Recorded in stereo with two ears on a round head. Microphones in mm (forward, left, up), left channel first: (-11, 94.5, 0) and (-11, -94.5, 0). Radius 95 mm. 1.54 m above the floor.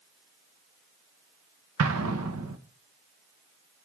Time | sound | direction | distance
1.8 | an explosion | 75° right (ahead or behind) | 1.6 m